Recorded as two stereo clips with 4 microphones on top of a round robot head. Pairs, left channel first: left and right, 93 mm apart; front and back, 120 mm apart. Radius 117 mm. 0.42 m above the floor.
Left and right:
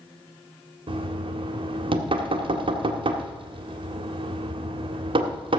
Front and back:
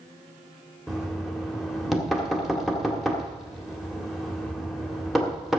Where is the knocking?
95° right, 1.8 m.